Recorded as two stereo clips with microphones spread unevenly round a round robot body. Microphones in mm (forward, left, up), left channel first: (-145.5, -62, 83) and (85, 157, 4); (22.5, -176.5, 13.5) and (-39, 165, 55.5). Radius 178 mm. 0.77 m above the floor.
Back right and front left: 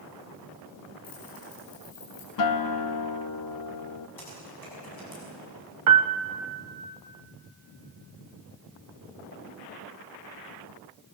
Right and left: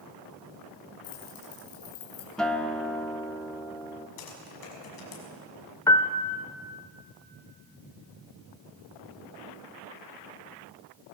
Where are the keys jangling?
70° right, 7.5 m.